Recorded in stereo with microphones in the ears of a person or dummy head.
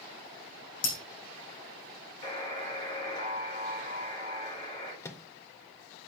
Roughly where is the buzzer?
Left.